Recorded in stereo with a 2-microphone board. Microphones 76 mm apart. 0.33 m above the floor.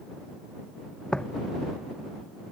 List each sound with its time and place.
1.1 s footsteps: 10° left (ahead or behind)